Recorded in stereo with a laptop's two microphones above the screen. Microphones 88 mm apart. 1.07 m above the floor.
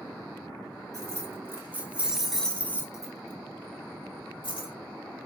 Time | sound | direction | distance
0.9 | keys jangling | 40° right (ahead or behind) | 1.3 m